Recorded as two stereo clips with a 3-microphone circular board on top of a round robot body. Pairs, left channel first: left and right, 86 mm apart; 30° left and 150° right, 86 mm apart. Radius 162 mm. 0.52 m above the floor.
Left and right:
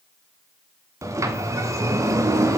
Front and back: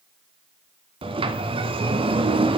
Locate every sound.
1.0 s a sliding door: 145° right, 2 m